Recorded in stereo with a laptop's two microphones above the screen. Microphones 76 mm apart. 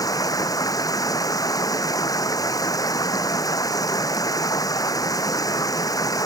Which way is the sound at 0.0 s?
50° left (ahead or behind).